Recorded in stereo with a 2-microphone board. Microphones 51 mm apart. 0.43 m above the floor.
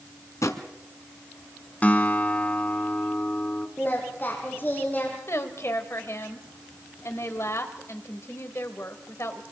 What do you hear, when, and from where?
0.4 s a drawer: 70° left (ahead or behind), 1.5 m
1.8 s a guitar: 30° left (ahead or behind), 1.5 m
3.8 s singing: 40° left (ahead or behind), 5 m
5.3 s a woman speaking: 55° left (ahead or behind), 2.5 m